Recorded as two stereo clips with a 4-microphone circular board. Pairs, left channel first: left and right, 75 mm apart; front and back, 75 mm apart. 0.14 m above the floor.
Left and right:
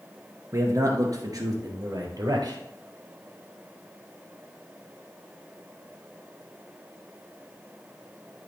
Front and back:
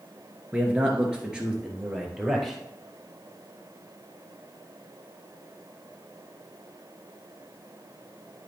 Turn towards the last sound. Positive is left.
turn(degrees=-95)